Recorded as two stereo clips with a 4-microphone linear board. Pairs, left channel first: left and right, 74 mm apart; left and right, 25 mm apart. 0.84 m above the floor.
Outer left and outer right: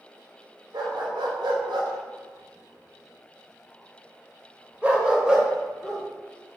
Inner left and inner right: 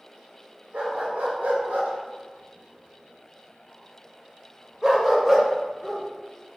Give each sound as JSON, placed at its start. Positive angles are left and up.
{"t": 0.7, "sound": "a dog barking", "side_deg": -70, "distance_m": 1.9}